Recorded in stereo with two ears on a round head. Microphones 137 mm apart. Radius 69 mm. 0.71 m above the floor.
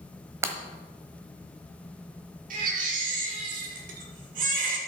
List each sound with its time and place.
0.4 s breaking glass: 20° right (ahead or behind), 1.1 m
2.5 s a baby crying: 60° right (ahead or behind), 1.7 m